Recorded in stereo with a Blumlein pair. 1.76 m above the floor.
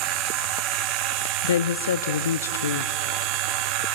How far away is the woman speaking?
About 0.6 m.